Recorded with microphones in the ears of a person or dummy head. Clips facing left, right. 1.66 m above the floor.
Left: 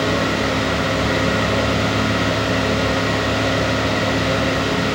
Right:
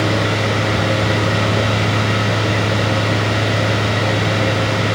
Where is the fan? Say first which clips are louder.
Right 1 dB; 35° right (ahead or behind), 1.2 m.